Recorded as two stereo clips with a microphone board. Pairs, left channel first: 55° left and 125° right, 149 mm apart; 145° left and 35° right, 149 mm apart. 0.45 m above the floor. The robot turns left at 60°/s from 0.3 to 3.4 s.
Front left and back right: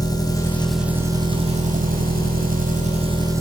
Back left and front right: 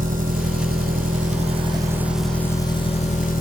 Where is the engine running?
10° right, 1.8 m; by 3.4 s 165° left, 1.8 m.